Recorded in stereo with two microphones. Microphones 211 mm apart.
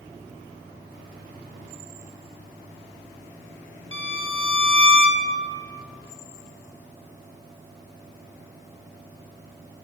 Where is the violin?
70° left (ahead or behind), 0.9 m.